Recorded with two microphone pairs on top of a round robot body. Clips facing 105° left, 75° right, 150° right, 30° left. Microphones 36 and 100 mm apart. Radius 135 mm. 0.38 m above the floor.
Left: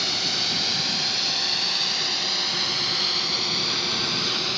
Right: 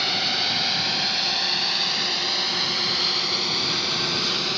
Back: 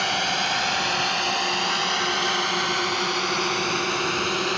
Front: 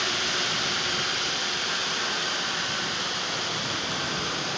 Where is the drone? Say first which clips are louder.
Right 2 dB, back 5 dB; 145° right; by 4.6 s 165° right.